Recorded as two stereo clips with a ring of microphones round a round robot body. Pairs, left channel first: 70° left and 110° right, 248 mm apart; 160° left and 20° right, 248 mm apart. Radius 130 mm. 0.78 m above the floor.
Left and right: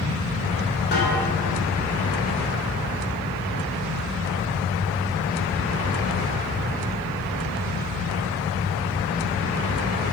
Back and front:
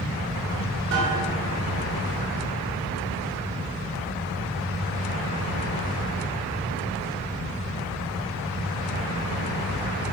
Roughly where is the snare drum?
Ahead.